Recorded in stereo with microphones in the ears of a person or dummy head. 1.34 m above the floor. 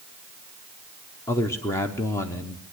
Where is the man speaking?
20° left (ahead or behind), 0.8 m.